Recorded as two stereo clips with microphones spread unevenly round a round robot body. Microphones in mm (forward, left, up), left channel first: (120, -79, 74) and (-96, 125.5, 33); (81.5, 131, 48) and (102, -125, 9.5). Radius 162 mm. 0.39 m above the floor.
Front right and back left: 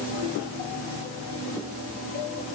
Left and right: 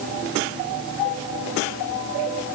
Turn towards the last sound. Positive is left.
No sound to turn to.